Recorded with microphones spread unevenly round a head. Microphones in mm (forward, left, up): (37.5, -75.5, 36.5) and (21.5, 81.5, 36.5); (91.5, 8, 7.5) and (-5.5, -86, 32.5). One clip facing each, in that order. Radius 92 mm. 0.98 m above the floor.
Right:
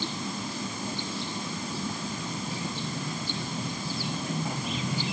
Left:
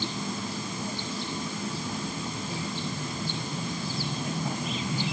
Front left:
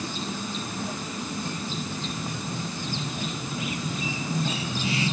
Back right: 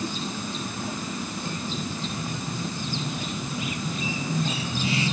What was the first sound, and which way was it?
Only background noise.